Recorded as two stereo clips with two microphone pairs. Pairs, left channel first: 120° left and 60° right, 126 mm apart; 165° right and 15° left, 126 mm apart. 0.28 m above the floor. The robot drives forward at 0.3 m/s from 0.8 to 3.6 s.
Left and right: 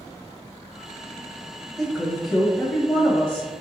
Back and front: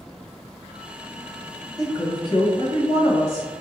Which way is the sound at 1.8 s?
145° right.